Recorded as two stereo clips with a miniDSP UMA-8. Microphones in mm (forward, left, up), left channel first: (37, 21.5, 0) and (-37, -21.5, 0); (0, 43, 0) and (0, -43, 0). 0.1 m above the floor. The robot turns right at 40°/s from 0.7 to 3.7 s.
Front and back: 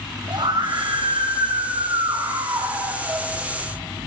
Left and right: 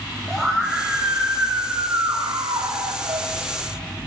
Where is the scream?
175° left, 5 m; by 3.3 s 80° right, 5 m.